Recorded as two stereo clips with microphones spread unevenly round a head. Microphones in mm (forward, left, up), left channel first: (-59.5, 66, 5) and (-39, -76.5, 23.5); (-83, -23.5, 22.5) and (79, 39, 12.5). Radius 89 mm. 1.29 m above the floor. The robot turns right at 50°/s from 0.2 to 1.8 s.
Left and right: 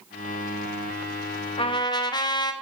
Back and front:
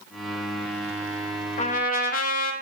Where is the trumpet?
150° left, 0.9 m; by 2.5 s 165° left, 0.9 m.